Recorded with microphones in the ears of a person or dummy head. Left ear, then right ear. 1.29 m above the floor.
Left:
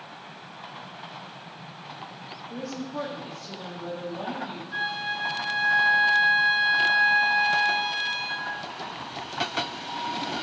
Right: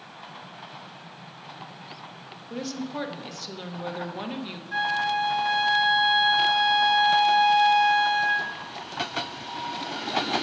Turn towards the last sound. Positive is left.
turn(degrees=-55)  # may be behind; listen again after turning